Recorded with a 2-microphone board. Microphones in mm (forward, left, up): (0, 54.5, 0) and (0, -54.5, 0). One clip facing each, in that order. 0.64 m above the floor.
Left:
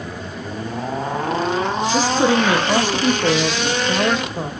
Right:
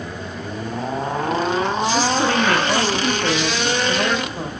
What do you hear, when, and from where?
1.9 s a woman speaking: 15° left (ahead or behind), 0.9 m